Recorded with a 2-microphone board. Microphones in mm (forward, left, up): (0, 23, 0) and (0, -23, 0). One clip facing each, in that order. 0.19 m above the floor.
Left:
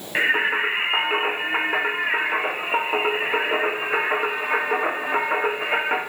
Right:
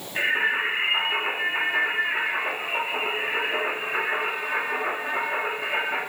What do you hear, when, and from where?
0.1 s singing: 65° left (ahead or behind), 2.5 m